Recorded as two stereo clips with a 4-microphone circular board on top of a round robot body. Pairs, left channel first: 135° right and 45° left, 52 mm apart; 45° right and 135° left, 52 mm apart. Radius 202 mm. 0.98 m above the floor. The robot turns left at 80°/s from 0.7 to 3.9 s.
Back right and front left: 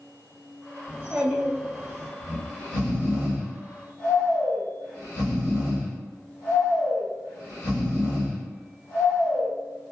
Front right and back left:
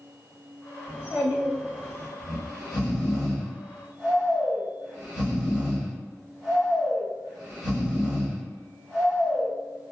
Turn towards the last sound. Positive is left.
turn(degrees=-155)